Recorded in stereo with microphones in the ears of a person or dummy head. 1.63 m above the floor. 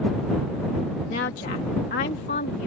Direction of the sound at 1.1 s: 40° left (ahead or behind).